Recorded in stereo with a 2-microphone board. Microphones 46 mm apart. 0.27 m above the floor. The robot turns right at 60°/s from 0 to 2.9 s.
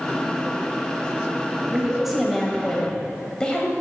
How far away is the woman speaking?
About 1.0 m.